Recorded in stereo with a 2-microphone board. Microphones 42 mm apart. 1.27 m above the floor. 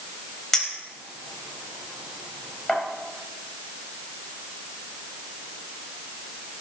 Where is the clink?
10° left (ahead or behind), 3.5 m.